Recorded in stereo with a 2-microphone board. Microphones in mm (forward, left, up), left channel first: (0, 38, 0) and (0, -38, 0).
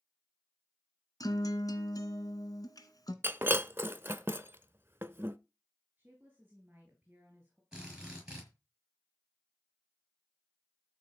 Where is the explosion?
I don't hear an explosion.